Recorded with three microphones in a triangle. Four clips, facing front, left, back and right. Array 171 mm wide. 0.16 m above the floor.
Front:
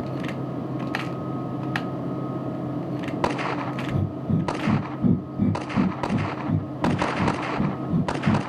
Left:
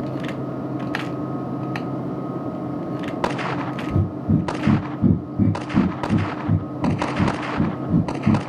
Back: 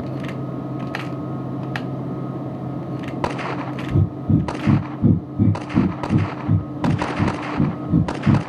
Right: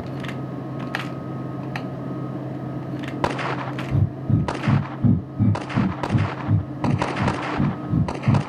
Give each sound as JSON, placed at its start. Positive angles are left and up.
{"t": 3.9, "sound": "breathing", "azimuth_deg": 125, "distance_m": 2.5}